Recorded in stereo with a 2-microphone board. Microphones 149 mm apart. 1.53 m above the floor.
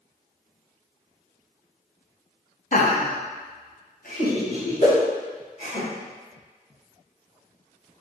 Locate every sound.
2.7 s laughter: 55° left (ahead or behind), 0.7 m; by 5.8 s 70° left (ahead or behind), 3 m
4.8 s a whoosh: 50° left (ahead or behind), 1.8 m